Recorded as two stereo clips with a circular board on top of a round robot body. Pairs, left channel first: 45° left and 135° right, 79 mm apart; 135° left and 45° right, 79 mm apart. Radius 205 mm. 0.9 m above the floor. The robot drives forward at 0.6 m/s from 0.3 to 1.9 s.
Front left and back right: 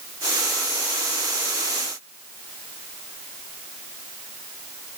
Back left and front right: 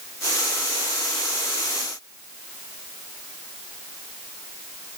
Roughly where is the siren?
I don't hear a siren.